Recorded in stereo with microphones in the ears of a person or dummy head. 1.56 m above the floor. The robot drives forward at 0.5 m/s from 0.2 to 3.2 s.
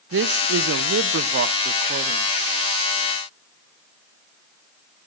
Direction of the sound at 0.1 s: 75° right (ahead or behind).